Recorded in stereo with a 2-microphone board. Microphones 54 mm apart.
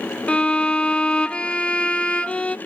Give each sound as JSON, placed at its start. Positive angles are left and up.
{"t": 0.3, "sound": "a violin", "side_deg": 25, "distance_m": 0.9}